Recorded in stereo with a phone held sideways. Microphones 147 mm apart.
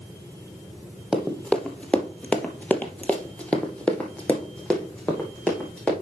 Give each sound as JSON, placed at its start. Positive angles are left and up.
{"t": 1.1, "sound": "running footsteps", "side_deg": 5, "distance_m": 1.8}